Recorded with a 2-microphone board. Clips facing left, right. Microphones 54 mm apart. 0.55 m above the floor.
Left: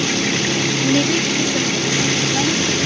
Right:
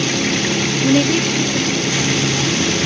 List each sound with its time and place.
0.8 s a woman speaking: 20° right (ahead or behind); by 2.8 s 50° left (ahead or behind)